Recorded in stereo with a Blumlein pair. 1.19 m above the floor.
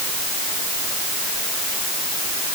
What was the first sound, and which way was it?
Only background noise.